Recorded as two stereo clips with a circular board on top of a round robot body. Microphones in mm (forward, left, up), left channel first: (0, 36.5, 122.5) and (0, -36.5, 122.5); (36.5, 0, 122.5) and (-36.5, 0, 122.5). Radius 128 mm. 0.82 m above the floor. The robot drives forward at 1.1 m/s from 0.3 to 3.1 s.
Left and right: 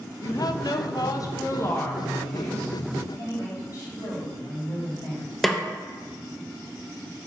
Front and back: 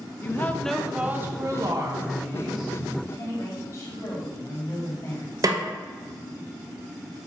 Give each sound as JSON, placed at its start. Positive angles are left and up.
{"t": 0.2, "sound": "a woman speaking", "azimuth_deg": 60, "distance_m": 1.1}
{"t": 3.1, "sound": "a woman speaking", "azimuth_deg": 45, "distance_m": 4.0}
{"t": 5.4, "sound": "a snare drum", "azimuth_deg": 180, "distance_m": 1.2}